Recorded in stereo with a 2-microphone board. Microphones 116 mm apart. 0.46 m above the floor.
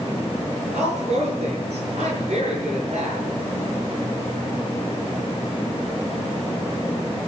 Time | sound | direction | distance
0.7 | a woman speaking | 65° right (ahead or behind) | 7.5 m